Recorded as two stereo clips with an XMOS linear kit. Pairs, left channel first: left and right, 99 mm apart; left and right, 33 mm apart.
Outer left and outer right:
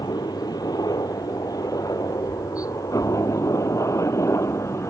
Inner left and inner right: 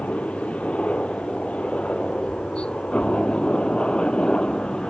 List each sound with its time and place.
0.0 s a helicopter: 40° left (ahead or behind); by 4.9 s 30° left (ahead or behind)